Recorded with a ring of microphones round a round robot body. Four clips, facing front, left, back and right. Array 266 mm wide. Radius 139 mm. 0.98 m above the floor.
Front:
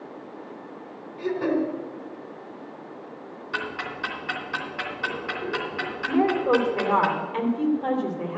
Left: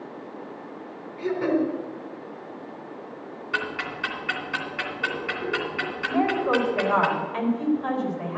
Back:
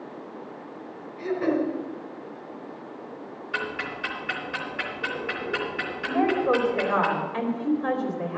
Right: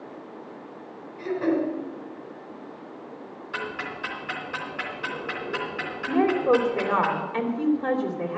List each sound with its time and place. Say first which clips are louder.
1.2 s throat clearing: left 1 dB, even; 30° left, 3.5 m
3.5 s ticking: left 3 dB, even; 25° left, 2.5 m
6.1 s a woman speaking: right 3 dB, front 1 dB; 35° right, 3 m